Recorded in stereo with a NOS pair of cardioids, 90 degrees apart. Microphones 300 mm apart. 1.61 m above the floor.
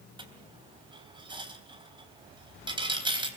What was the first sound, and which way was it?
A dropped coin, 15° right.